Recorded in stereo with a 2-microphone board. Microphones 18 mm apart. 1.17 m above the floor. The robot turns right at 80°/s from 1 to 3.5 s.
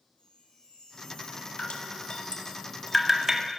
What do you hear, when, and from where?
0.2 s a chime: 75° left, 10 m; by 2.6 s 160° right, 10 m
1.6 s dripping: 75° left (ahead or behind), 1.8 m; by 3.4 s 40° right (ahead or behind), 1.8 m